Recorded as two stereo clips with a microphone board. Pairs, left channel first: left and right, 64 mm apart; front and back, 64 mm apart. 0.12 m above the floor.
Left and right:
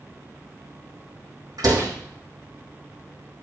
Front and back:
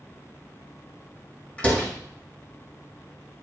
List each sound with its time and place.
1.6 s a door slam: 70° right, 3.5 m